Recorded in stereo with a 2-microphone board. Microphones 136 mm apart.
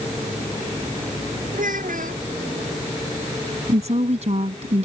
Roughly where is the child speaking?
Right.